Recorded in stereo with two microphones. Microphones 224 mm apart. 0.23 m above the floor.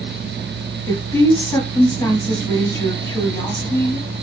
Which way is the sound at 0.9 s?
15° left (ahead or behind).